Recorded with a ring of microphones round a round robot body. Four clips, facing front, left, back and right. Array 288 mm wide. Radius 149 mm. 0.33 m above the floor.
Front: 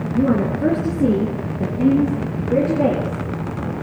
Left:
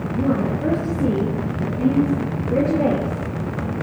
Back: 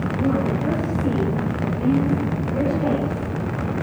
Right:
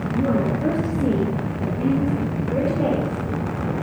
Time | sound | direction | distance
0.1 | a woman speaking | 5° right | 5 m